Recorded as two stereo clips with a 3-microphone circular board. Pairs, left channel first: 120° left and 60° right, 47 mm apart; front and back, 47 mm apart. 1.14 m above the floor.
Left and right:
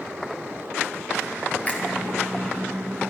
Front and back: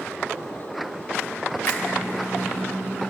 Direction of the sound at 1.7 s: 60° left.